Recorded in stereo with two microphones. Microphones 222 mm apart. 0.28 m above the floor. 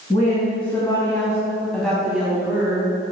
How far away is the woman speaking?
About 2 m.